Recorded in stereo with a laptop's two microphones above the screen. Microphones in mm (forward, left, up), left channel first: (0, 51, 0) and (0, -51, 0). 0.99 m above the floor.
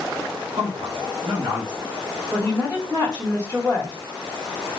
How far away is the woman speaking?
About 1.7 m.